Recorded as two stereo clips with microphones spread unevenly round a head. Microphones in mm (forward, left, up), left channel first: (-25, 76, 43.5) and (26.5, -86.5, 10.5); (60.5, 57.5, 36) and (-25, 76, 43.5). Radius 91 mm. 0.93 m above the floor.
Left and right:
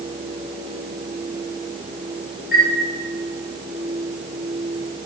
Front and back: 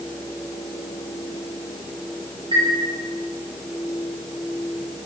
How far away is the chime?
About 5 m.